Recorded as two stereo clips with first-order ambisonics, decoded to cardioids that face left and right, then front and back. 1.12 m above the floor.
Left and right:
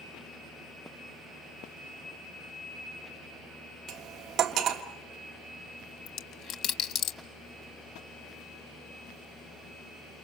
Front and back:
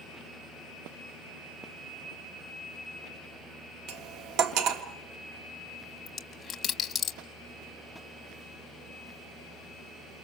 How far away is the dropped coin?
About 1.1 m.